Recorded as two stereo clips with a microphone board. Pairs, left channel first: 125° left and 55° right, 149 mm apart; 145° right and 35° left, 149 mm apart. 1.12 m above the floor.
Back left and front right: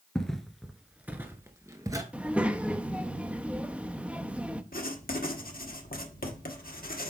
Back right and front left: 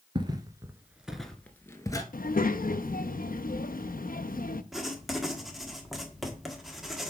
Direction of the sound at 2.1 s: 135° right.